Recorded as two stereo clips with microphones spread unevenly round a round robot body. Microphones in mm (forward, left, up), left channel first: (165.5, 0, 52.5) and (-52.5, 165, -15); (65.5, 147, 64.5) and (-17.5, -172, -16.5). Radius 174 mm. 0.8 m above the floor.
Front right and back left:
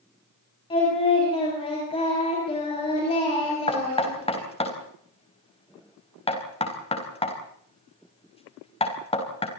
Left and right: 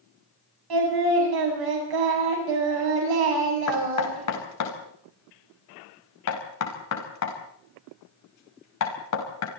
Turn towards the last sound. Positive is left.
turn(degrees=35)